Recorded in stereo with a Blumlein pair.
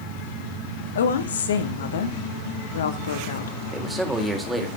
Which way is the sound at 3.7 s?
5° right.